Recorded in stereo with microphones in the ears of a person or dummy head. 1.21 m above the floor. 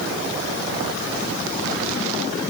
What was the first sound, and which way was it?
Only background noise.